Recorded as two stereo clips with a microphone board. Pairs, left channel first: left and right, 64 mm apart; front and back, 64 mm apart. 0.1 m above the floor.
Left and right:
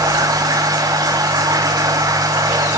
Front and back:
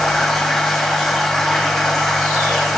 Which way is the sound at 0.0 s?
85° right.